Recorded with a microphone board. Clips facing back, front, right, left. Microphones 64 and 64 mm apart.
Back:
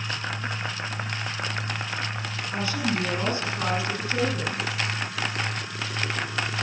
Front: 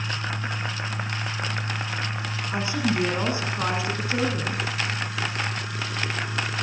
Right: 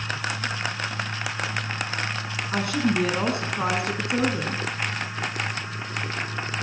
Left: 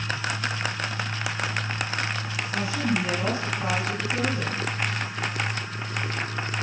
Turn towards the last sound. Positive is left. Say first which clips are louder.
# front 2 dB, right 3 dB
turn(degrees=-65)